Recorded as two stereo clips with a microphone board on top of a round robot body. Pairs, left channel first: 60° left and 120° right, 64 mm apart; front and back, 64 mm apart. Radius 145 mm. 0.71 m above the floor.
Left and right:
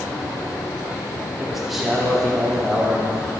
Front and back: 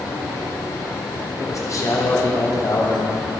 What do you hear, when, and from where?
1.4 s a man speaking: 35° right, 3 m